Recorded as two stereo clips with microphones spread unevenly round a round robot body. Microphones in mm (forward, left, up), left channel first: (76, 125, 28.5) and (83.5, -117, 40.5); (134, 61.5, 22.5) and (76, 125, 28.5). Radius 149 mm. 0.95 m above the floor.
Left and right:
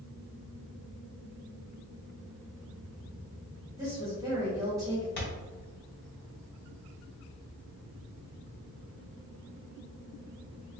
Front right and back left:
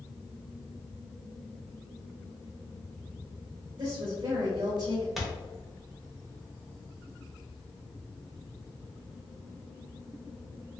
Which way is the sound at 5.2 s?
45° left.